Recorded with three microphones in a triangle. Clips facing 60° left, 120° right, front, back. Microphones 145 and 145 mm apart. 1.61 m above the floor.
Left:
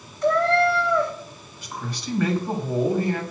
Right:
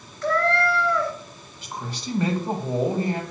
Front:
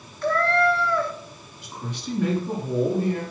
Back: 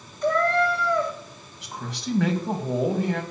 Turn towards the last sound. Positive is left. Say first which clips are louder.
# even, back 1 dB
turn(degrees=175)